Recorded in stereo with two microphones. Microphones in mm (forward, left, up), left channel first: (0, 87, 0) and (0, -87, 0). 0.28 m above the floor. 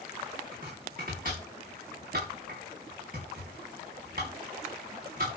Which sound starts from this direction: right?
Chopping, at 0.5 s.